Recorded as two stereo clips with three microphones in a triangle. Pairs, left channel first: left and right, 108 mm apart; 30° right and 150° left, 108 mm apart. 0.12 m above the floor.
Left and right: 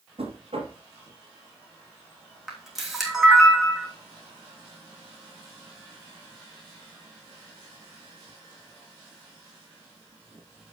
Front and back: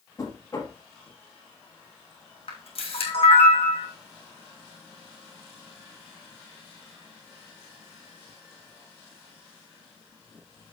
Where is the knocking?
85° right, 3 m.